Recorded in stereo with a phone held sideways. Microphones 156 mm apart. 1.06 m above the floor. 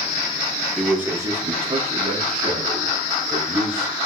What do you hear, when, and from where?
0.8 s a man speaking: 5° left (ahead or behind), 0.5 m; by 3.9 s 60° right (ahead or behind), 2.5 m